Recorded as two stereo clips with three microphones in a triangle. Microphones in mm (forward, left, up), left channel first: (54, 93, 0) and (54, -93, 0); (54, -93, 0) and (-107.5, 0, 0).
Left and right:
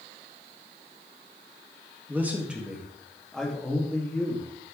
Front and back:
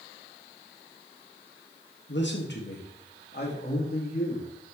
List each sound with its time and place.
2.1 s a man speaking: 10° right, 1.9 m; by 4.5 s 10° left, 3 m